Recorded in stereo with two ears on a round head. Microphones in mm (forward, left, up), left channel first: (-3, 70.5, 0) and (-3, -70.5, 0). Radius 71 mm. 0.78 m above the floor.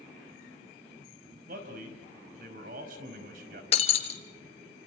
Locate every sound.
1.5 s a man speaking: 60° right (ahead or behind), 5 m
3.7 s breaking glass: 40° left (ahead or behind), 1.8 m